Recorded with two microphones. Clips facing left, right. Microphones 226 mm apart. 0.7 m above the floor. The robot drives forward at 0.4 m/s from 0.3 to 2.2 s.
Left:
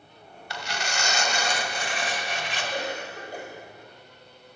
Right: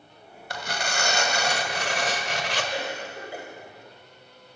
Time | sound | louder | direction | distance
0.5 | tearing paper | right 2 dB | 45° right (ahead or behind) | 1.8 m
2.7 | a cough | even | 5° right (ahead or behind) | 4.5 m